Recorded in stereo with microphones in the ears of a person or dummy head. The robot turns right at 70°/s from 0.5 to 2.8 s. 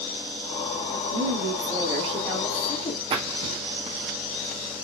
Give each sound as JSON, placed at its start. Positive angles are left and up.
{"t": 0.9, "sound": "a woman speaking", "azimuth_deg": -95, "distance_m": 3.0}
{"t": 3.1, "sound": "a splash", "side_deg": -30, "distance_m": 1.4}